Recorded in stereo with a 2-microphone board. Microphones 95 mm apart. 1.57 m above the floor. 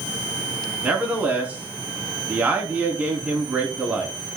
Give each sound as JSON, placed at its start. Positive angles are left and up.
{"t": 0.8, "sound": "a man speaking", "side_deg": -15, "distance_m": 3.0}